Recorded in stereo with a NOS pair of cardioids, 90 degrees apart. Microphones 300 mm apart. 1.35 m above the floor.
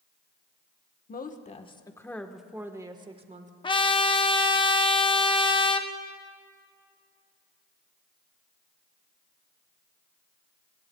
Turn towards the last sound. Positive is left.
turn(degrees=15)